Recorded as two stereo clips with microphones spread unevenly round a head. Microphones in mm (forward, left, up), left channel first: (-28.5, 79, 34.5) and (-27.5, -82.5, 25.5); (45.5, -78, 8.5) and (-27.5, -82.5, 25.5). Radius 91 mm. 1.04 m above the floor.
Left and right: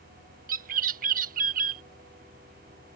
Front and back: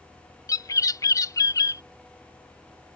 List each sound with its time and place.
0.5 s a bird: 40° right